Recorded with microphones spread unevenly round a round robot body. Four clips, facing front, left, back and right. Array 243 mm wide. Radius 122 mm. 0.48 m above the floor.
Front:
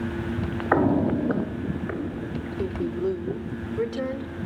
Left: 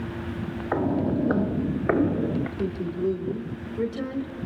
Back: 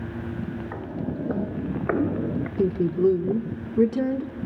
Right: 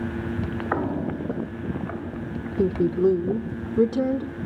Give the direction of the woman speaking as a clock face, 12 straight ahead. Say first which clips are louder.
Right 7 dB, back 6 dB; 4 o'clock.